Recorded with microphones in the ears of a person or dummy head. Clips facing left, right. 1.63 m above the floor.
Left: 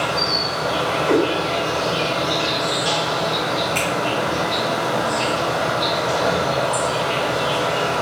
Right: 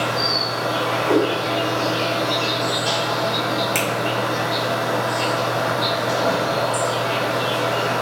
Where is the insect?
40° left (ahead or behind), 1.5 m.